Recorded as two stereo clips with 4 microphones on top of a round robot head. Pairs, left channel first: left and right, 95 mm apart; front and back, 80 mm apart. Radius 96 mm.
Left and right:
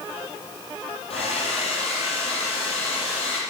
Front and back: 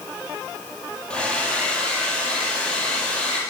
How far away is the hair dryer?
About 6 m.